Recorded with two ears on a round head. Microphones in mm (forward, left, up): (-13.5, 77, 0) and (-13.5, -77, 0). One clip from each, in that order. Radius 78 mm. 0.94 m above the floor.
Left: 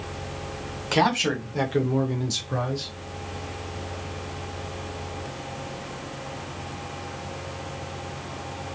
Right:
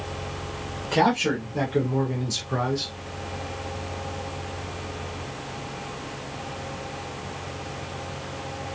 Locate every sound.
0.9 s a man speaking: 55° left (ahead or behind), 1.7 m; by 2.9 s 20° right (ahead or behind), 1.1 m